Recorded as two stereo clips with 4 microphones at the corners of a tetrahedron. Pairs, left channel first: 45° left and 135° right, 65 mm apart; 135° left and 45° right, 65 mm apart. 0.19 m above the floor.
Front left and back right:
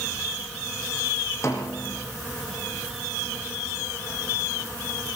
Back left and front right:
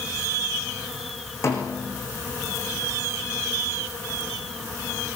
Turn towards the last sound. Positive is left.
turn(degrees=90)